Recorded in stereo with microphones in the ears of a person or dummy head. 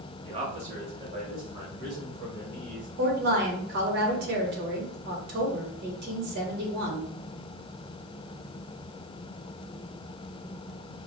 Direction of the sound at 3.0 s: 65° right (ahead or behind).